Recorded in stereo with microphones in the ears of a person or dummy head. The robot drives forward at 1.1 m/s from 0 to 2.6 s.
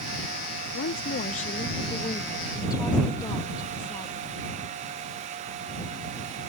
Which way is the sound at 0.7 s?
70° left (ahead or behind).